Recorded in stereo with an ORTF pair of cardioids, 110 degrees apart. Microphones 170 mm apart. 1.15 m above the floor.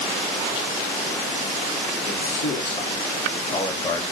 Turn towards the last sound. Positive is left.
turn(degrees=20)